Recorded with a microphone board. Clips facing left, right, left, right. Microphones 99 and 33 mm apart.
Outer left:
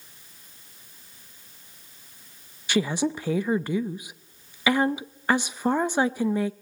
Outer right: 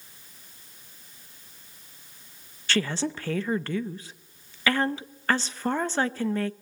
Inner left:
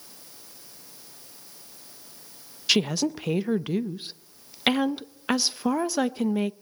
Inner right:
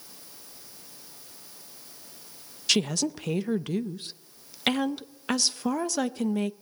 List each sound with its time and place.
2.7 s a woman speaking: 15° left (ahead or behind), 0.5 m